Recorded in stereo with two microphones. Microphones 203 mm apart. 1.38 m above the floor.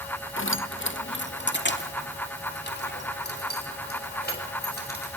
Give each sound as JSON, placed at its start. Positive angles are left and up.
{"t": 0.4, "sound": "keys jangling", "side_deg": 75, "distance_m": 0.9}